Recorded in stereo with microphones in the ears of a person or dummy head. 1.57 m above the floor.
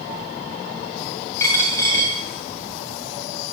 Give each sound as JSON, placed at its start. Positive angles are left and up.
{"t": 1.4, "sound": "a dropped coin", "side_deg": 20, "distance_m": 2.5}